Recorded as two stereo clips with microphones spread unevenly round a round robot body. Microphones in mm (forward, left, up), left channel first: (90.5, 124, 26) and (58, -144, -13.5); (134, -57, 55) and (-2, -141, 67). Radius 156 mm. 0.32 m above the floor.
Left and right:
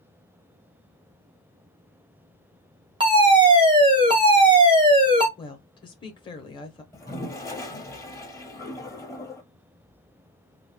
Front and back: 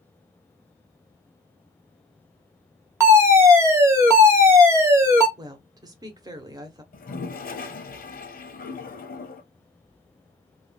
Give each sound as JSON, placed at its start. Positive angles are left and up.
{"t": 3.0, "sound": "a fire alarm", "azimuth_deg": -85, "distance_m": 1.9}
{"t": 5.4, "sound": "a woman speaking", "azimuth_deg": 160, "distance_m": 0.9}
{"t": 6.9, "sound": "a toilet flushing", "azimuth_deg": 5, "distance_m": 1.3}